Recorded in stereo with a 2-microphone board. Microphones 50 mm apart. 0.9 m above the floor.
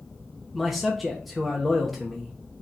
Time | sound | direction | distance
0.5 | a man speaking | centre (ahead or behind) | 0.9 m